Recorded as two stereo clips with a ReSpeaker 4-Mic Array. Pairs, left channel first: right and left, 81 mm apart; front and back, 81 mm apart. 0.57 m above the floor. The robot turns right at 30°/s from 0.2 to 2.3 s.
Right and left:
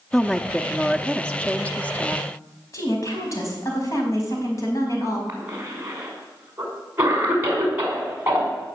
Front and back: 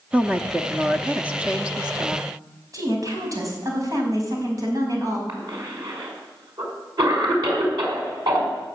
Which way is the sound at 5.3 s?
155° left.